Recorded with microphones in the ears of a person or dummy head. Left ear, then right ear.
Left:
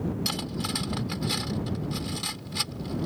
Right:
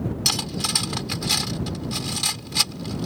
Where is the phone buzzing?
No phone buzzing in this recording.